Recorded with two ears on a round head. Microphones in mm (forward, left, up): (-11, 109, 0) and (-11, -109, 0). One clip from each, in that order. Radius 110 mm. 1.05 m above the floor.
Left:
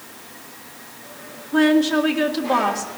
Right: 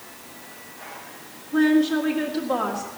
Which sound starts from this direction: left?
A woman speaking, at 1.5 s.